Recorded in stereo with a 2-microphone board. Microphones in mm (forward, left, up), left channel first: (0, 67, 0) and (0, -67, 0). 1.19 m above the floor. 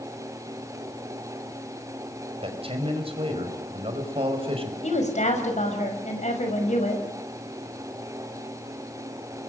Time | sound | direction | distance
2.4 | a man speaking | 45° right (ahead or behind) | 5 m
4.8 | a woman speaking | 60° left (ahead or behind) | 5.5 m